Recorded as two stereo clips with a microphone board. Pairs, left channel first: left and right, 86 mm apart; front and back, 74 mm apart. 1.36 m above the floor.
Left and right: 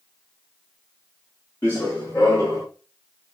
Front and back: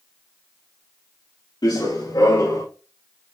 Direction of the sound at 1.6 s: 25° left.